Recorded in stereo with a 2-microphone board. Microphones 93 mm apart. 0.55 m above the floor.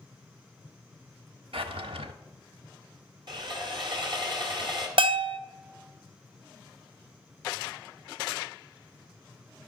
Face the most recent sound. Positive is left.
turn(degrees=-60)  # may be behind; listen again after turning